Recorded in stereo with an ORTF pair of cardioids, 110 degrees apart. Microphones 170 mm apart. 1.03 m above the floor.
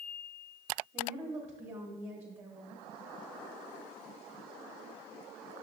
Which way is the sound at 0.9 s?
40° right.